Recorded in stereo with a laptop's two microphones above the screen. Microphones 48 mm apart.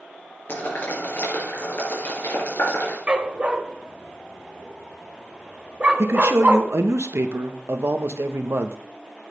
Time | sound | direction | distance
0.5 | boiling | 50° left (ahead or behind) | 4 m
3.1 | a dog barking | 25° right (ahead or behind) | 0.8 m
6.0 | a man speaking | 70° right (ahead or behind) | 0.9 m